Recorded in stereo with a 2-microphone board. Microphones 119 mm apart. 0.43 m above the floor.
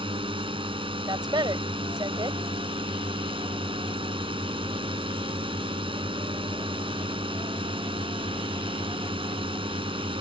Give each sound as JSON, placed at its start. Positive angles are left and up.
{"t": 0.0, "sound": "a drone", "side_deg": -50}
{"t": 1.1, "sound": "a woman speaking", "side_deg": -40}